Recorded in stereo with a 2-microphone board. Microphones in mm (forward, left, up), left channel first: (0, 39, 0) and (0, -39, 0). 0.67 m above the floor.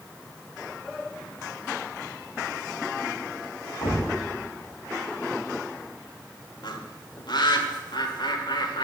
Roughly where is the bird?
Left.